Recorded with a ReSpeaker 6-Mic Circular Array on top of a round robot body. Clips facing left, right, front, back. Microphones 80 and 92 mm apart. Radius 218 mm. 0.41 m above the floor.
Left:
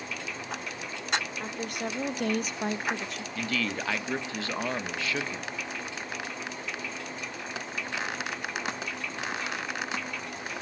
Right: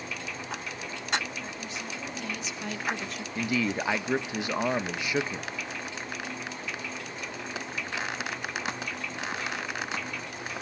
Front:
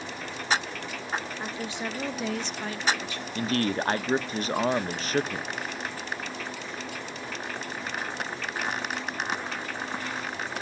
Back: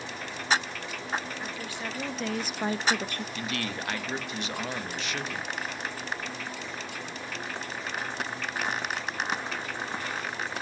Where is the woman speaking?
65° left, 1.7 m; by 3.2 s 170° right, 1.0 m.